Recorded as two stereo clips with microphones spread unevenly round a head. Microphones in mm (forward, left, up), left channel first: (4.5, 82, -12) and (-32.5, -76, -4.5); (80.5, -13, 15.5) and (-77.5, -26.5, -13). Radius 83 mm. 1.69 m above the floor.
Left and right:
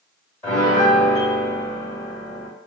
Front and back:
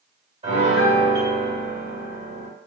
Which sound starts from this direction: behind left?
A piano, at 0.4 s.